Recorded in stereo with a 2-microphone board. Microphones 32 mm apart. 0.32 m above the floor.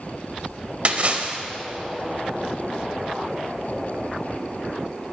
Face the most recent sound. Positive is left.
turn(degrees=-40)  # may be behind; listen again after turning